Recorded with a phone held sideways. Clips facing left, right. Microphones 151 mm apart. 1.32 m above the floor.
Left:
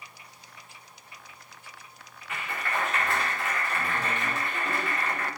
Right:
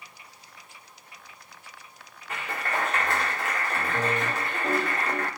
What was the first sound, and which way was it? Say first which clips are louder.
A clap: right 2 dB; 40° right (ahead or behind).